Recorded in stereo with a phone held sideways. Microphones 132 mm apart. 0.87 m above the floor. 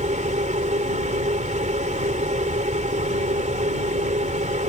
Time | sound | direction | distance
0.0 | a machine running | 65° right (ahead or behind) | ?